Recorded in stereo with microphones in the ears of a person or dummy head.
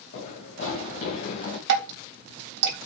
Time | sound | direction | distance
0.1 | running footsteps | 55° left (ahead or behind) | 6.5 m
1.7 | dripping | 65° right (ahead or behind) | 3.5 m